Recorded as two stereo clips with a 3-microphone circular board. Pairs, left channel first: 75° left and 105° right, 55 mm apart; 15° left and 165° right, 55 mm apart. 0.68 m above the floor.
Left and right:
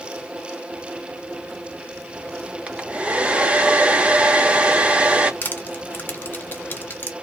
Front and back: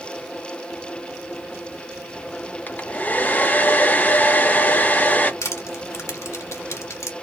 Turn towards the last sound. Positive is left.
turn(degrees=25)